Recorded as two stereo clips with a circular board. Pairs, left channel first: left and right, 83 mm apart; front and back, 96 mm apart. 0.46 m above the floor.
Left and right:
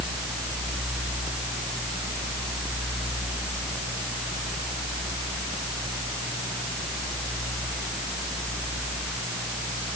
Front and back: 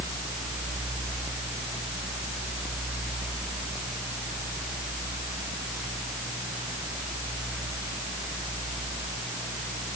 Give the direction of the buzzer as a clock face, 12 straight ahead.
No buzzer in this recording.